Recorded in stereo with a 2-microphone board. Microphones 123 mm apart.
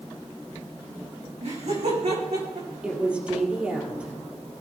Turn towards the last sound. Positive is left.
turn(degrees=-10)  # may be behind; listen again after turning